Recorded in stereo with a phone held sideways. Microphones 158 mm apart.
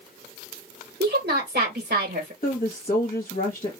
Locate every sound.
1.0 s a woman speaking: 75° right (ahead or behind), 1.5 m
2.4 s a woman speaking: 55° left (ahead or behind), 1.0 m